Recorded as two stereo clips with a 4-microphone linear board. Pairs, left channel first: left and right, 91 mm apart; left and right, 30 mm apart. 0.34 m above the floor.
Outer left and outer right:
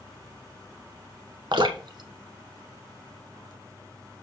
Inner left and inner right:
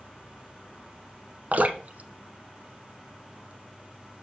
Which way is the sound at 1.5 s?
60° right (ahead or behind).